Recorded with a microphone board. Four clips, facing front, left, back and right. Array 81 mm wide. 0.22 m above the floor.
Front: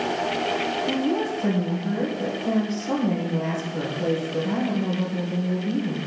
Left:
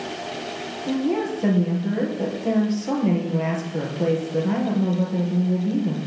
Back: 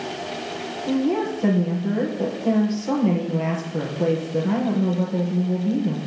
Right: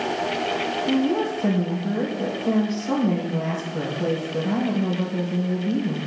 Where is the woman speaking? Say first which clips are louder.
Even, back 6 dB; 125° left, 4 m.